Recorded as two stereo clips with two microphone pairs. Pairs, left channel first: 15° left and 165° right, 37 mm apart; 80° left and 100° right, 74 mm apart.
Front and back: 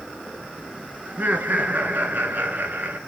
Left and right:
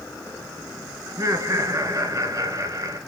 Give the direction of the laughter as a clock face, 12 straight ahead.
5 o'clock.